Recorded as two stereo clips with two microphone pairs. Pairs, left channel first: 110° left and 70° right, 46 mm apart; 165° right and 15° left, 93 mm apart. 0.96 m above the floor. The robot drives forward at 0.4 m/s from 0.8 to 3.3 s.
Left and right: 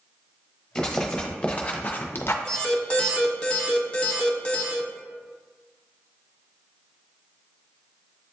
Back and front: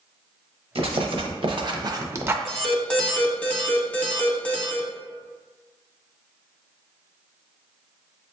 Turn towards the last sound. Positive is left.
turn(degrees=140)